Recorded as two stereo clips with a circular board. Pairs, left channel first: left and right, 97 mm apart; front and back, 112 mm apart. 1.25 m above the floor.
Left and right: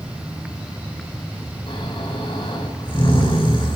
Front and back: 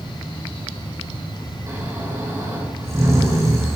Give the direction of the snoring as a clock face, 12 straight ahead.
8 o'clock.